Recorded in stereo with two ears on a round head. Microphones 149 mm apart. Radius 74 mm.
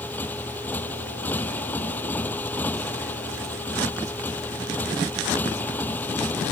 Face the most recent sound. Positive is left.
turn(degrees=10)  # may be behind; listen again after turning